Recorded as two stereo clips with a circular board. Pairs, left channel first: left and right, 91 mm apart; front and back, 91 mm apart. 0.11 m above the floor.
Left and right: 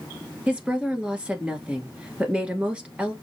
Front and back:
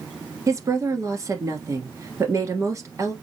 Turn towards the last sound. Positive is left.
turn(degrees=-160)